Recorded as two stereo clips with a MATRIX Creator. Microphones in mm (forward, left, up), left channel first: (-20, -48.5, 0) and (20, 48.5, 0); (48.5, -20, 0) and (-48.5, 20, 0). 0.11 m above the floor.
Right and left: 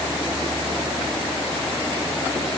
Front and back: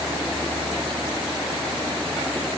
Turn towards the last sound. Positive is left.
No sound to turn to.